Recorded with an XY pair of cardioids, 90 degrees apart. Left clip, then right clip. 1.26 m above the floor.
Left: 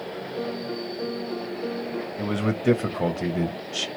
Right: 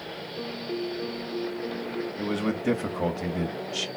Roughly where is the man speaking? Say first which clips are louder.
Left 3 dB; ahead.